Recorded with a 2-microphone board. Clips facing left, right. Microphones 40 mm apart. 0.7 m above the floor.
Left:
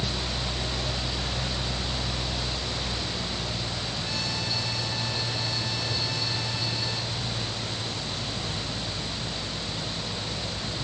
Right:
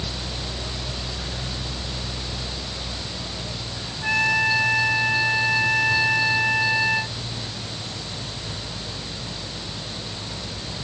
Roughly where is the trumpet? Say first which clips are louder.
Right 17 dB; right.